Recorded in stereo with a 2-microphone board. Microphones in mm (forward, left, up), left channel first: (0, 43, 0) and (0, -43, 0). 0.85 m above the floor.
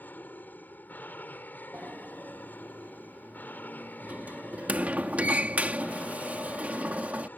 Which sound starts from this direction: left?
An aircraft, at 0.0 s.